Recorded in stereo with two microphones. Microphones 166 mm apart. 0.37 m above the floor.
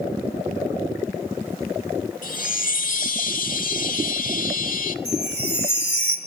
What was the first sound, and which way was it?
A chime, 55° left (ahead or behind).